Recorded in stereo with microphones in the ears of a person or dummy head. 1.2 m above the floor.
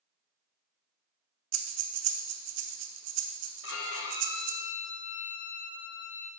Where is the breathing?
65° right (ahead or behind), 0.7 m.